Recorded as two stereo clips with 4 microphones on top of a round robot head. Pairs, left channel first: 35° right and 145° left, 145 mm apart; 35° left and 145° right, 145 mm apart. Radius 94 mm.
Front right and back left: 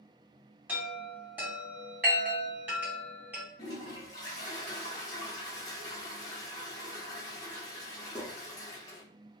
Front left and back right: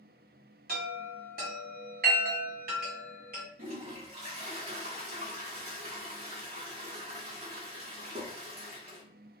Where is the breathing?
I don't hear breathing.